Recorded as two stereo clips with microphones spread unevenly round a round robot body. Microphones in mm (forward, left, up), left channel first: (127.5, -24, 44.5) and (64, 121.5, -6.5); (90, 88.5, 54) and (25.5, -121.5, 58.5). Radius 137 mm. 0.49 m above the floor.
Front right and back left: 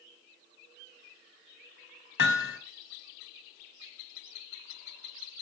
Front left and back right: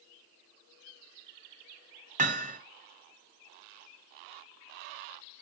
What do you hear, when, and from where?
2.2 s hammering: 55° right, 2.5 m